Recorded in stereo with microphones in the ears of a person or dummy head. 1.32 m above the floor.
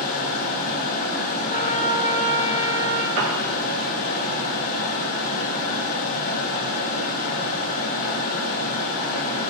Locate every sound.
0.0 s a fan: 45° left (ahead or behind), 4.5 m
1.5 s a trumpet: 35° left (ahead or behind), 2 m
3.2 s a piano: 70° right (ahead or behind), 1.6 m